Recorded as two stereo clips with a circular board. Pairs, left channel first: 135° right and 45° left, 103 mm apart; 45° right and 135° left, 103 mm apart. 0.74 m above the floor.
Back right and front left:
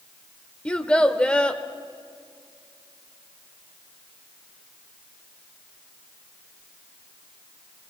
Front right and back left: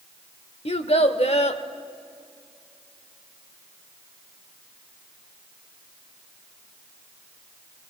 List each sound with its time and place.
0.7 s a child speaking: 55° right, 1.2 m